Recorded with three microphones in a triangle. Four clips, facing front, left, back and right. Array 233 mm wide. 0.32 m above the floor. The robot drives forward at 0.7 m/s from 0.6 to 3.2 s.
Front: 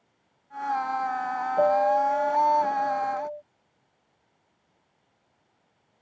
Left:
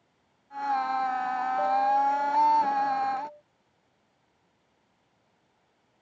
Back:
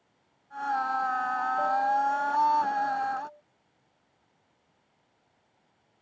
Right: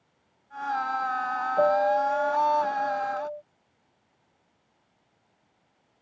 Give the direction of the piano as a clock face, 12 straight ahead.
1 o'clock.